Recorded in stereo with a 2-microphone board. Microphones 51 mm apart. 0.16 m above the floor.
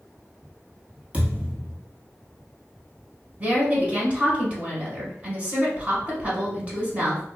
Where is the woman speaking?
25° right (ahead or behind), 1.2 m.